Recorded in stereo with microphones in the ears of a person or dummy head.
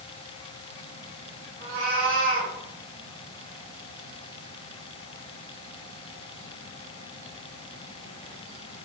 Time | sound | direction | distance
1.6 | a cat meowing | 65° right (ahead or behind) | 1.6 m